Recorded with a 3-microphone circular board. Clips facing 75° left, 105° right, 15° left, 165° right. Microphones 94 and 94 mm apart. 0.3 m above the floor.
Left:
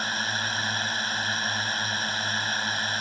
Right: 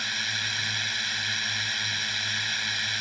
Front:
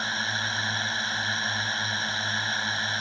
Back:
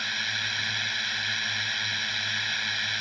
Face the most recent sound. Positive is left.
turn(degrees=55)